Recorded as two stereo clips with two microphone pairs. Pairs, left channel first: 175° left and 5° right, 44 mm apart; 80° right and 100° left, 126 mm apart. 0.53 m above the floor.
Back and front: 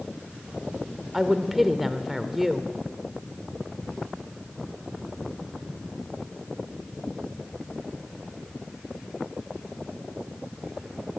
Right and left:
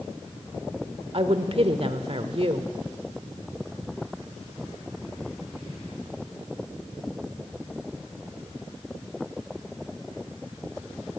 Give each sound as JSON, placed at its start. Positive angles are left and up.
{"t": 1.1, "sound": "a woman speaking", "azimuth_deg": 80, "distance_m": 1.3}